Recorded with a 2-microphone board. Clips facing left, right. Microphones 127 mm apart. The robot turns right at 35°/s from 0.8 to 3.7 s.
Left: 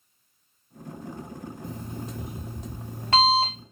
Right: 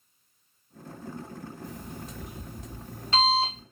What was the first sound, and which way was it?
An alarm clock, 30° left.